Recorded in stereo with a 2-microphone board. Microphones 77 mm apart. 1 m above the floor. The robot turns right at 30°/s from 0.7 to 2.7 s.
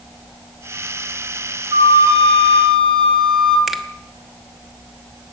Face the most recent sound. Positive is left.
turn(degrees=-5)  # may be behind; listen again after turning